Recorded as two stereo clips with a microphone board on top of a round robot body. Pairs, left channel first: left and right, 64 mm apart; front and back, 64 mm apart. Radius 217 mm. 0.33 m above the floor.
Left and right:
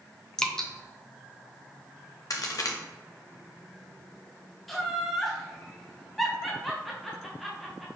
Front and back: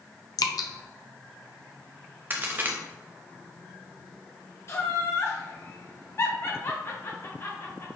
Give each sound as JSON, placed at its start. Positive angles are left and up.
{"t": 0.4, "sound": "dripping", "azimuth_deg": 10, "distance_m": 0.8}
{"t": 2.3, "sound": "a crack", "azimuth_deg": 120, "distance_m": 0.6}
{"t": 4.7, "sound": "laughter", "azimuth_deg": 0, "distance_m": 1.1}